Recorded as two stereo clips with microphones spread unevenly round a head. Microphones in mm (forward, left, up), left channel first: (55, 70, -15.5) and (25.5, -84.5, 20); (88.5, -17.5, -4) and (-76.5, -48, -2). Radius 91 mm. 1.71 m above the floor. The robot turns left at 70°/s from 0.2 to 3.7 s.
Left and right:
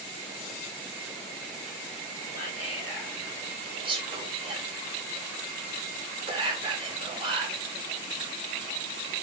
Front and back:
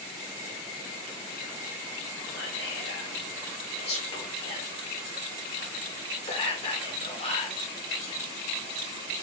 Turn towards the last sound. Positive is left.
turn(degrees=-45)